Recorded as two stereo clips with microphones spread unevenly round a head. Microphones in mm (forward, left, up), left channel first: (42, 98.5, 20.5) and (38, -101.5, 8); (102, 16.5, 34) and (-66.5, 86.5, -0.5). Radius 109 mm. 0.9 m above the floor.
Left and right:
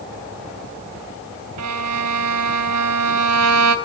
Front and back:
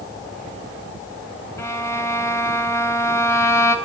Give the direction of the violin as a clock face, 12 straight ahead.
3 o'clock.